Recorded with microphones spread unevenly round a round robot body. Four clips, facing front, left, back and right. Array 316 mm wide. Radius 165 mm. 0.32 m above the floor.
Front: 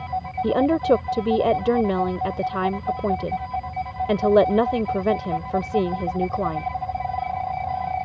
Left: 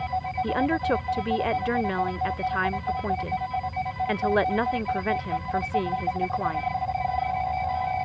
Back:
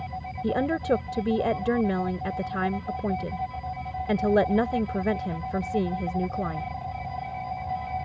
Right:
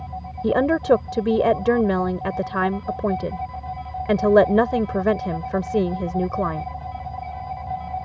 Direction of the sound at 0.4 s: 95° right.